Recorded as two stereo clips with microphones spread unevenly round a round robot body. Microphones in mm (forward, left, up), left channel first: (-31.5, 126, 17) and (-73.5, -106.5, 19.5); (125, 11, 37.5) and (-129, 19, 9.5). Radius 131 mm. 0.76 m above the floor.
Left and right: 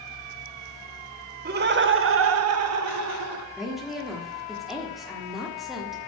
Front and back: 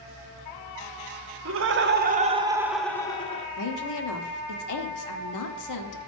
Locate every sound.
1.4 s laughter: 150° right, 1.2 m; by 3.5 s 65° right, 1.1 m
3.6 s a woman speaking: 10° right, 1.3 m